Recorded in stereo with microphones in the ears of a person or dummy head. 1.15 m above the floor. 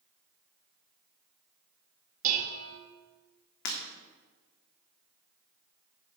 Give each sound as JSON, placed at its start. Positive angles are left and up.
{"t": 2.2, "sound": "dishes clattering", "side_deg": -45, "distance_m": 1.0}
{"t": 3.6, "sound": "breaking glass", "side_deg": 60, "distance_m": 1.5}